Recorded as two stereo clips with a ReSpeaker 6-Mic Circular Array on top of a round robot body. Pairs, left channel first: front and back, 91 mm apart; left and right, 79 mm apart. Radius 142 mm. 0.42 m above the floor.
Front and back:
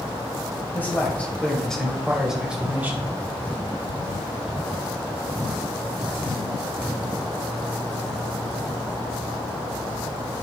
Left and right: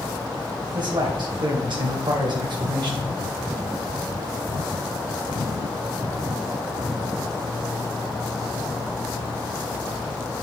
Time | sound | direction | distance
0.7 | a man speaking | 70° right | 2.5 m